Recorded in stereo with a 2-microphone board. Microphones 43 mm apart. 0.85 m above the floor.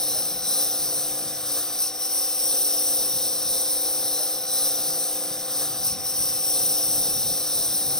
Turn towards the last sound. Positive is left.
turn(degrees=10)  # may be behind; listen again after turning